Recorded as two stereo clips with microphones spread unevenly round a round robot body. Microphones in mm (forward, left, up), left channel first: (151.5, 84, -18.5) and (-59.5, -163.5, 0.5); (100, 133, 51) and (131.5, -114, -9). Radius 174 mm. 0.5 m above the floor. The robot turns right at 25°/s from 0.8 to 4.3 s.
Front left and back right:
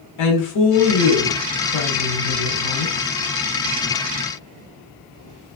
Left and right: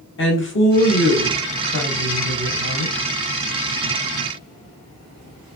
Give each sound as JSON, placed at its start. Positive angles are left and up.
{"t": 0.2, "sound": "a woman speaking", "azimuth_deg": 55, "distance_m": 1.4}